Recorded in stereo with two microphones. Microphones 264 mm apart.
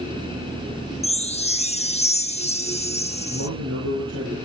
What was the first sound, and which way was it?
A chime, 25° left (ahead or behind).